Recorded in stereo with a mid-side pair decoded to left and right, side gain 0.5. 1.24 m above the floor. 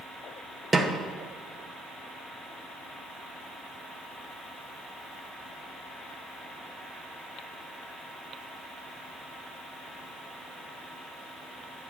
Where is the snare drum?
25° right, 0.9 m.